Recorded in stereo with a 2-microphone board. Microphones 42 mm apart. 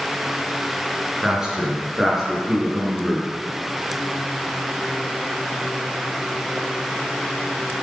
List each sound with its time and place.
1.2 s a man speaking: 15° right (ahead or behind), 3.5 m; by 3.3 s centre (ahead or behind), 4 m